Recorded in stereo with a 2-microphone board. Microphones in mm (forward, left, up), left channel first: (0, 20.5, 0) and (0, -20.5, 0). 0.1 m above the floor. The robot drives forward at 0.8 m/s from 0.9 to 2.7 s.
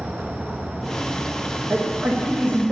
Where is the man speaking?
45° right (ahead or behind), 5.5 m; by 2.7 s 40° right (ahead or behind), 6 m.